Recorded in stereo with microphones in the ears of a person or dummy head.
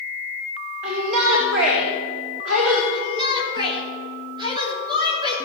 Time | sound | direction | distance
0.8 | a shout | 65° right (ahead or behind) | 1.8 m
2.9 | a shout | 25° right (ahead or behind) | 3 m